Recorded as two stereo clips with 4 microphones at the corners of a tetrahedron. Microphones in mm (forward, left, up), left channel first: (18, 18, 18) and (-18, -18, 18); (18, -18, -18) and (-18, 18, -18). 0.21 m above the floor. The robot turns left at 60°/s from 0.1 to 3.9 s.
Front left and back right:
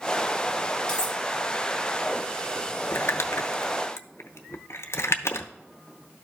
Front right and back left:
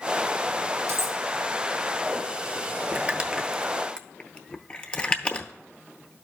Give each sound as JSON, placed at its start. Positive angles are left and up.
{"t": 0.9, "sound": "cutlery clinking", "azimuth_deg": 115, "distance_m": 1.6}
{"t": 2.9, "sound": "crumpling", "azimuth_deg": 80, "distance_m": 0.8}